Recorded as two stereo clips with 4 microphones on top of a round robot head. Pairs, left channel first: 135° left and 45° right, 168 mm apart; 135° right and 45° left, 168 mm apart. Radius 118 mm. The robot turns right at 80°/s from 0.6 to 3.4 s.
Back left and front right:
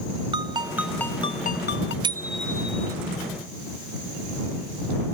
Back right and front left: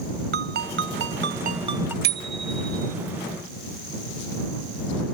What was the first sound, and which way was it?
A ringtone, 20° left.